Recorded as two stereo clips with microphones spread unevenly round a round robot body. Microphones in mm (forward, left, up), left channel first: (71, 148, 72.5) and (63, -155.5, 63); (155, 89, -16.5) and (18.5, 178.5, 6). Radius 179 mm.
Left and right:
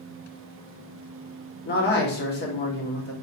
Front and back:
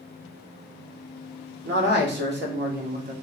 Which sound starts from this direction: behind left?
A man speaking, at 1.6 s.